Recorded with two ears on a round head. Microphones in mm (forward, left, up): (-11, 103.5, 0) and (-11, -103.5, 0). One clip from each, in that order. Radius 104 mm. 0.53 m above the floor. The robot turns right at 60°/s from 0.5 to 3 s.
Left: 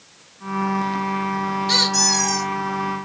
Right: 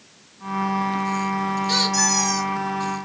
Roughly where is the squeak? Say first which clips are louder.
Left 3 dB; behind.